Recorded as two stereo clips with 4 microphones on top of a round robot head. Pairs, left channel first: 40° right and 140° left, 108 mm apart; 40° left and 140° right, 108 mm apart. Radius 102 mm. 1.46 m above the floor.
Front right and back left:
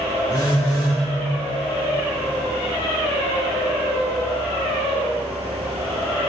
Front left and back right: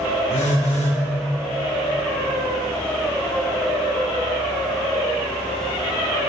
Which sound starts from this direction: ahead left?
A phone buzzing, at 0.3 s.